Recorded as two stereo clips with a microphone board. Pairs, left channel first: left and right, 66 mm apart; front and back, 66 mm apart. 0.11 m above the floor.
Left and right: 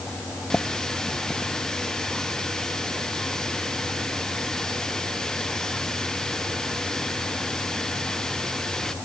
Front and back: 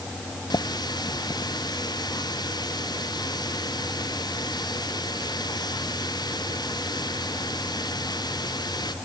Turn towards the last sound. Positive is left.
turn(degrees=10)